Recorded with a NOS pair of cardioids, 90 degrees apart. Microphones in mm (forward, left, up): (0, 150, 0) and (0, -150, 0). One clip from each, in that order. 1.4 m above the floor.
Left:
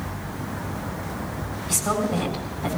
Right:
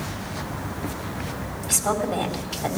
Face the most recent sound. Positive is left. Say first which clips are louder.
# right 1 dB
turn(degrees=-45)